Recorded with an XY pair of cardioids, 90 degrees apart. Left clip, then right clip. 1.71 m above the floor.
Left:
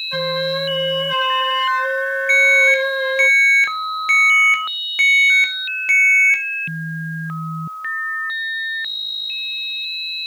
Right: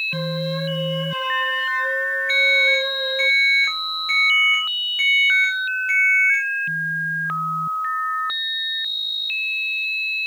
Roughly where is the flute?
Left.